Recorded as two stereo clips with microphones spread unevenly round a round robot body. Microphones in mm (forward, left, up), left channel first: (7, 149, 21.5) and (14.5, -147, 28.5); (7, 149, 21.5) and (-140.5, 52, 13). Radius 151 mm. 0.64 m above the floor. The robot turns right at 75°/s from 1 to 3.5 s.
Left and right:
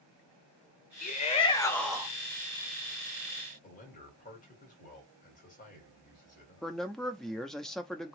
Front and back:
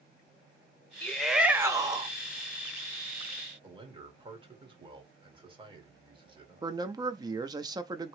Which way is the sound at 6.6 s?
175° left.